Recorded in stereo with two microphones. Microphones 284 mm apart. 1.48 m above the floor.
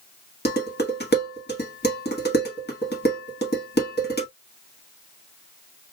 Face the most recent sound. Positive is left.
turn(degrees=35)  # may be behind; listen again after turning